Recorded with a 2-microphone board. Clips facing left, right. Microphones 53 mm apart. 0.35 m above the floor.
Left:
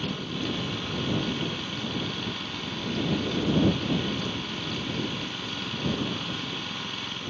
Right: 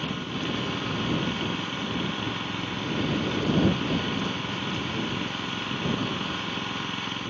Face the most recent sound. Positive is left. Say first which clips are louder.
# right 1 dB
turn(degrees=-20)  # may be behind; listen again after turning